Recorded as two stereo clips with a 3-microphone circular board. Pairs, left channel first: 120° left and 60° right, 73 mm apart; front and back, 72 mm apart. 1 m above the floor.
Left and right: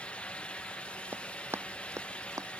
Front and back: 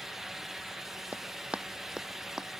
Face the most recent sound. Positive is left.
turn(degrees=-95)